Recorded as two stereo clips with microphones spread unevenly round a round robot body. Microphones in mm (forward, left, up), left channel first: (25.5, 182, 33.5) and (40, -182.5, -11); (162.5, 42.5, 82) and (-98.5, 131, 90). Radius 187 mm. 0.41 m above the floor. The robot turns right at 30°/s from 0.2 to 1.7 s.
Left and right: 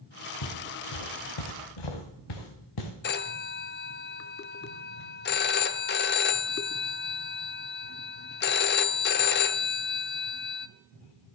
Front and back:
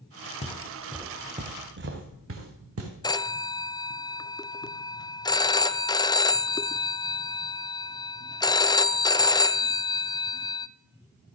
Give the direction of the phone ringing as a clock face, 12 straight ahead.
11 o'clock.